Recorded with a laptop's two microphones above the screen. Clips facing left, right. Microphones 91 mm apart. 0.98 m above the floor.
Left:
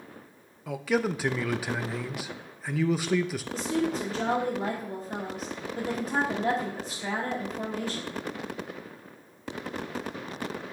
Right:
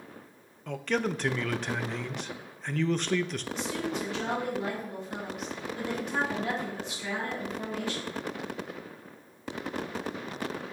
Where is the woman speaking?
35° left (ahead or behind), 1.7 m.